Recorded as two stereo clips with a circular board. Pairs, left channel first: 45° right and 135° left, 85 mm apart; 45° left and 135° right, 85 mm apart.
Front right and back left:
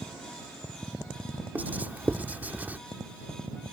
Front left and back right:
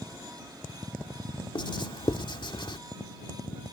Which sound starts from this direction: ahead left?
Writing, at 1.6 s.